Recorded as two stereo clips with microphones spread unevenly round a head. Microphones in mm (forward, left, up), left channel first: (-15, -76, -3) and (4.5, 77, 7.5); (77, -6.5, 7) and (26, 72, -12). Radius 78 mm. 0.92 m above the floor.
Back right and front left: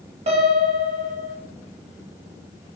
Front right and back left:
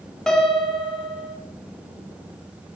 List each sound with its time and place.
0.3 s a piano: 30° left, 0.7 m